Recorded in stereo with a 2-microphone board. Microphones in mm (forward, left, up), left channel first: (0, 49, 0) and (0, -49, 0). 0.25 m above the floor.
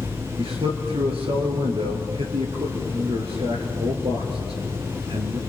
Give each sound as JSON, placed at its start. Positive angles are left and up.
{"t": 0.4, "sound": "a man speaking", "side_deg": -75, "distance_m": 4.0}